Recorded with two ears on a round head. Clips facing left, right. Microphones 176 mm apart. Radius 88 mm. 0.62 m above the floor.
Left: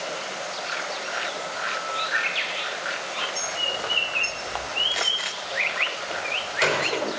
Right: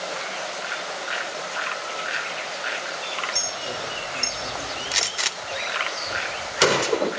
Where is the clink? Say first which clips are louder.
Even; 55° right (ahead or behind), 6 m.